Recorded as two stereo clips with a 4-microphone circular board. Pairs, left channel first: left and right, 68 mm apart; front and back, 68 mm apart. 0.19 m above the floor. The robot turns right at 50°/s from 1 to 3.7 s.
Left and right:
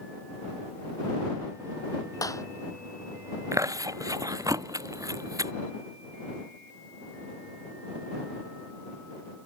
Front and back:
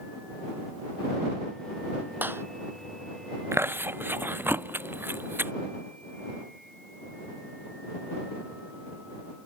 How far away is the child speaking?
No child speaking in this recording.